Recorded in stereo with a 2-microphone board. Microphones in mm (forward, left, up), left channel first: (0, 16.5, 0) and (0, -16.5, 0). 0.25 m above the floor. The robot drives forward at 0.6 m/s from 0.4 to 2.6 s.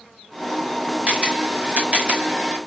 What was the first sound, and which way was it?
A camera shutter, 35° right (ahead or behind).